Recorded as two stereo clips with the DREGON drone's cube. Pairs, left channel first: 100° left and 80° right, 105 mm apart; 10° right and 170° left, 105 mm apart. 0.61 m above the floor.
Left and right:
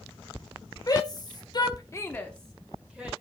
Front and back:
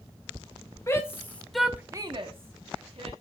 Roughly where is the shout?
Ahead left.